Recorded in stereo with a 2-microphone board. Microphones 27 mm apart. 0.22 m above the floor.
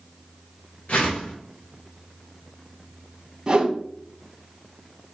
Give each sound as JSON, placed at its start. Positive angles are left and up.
{"t": 0.9, "sound": "a whoosh", "side_deg": 70, "distance_m": 2.0}
{"t": 3.5, "sound": "a whoosh", "side_deg": -30, "distance_m": 0.8}